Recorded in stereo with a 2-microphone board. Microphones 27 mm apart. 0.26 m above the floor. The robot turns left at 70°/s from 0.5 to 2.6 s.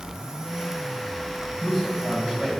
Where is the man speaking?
5° right, 1.6 m; by 2.5 s 65° right, 1.6 m.